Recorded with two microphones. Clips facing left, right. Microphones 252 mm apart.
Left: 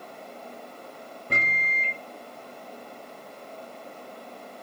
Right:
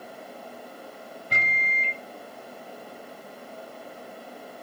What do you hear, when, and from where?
1.3 s a microwave: 55° left (ahead or behind), 1.6 m